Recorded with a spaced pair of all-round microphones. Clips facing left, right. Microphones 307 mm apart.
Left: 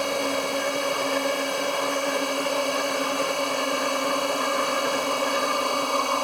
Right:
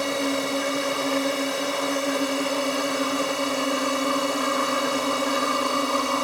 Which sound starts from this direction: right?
A drone, at 0.0 s.